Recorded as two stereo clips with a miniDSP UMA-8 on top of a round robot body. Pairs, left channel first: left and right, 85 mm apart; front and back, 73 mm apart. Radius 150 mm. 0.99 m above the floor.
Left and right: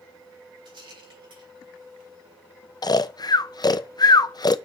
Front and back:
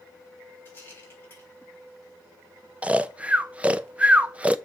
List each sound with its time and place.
0.7 s a rattle: 60° right, 4 m
2.8 s snoring: 110° left, 0.7 m